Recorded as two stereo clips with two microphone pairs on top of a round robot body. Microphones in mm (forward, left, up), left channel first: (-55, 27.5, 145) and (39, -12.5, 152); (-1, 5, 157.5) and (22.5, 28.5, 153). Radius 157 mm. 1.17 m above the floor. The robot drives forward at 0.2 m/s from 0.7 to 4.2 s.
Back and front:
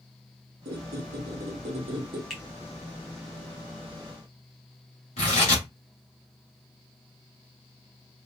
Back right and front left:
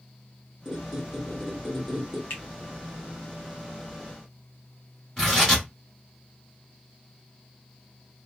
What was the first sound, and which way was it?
A squeak, 35° right.